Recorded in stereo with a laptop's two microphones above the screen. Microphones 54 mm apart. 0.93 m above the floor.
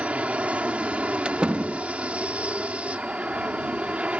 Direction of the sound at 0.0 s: 25° right (ahead or behind).